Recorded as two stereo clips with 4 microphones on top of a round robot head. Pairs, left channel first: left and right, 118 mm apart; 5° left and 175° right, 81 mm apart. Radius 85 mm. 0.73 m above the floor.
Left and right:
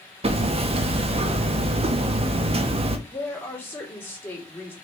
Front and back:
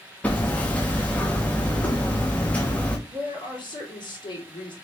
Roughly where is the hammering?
Right.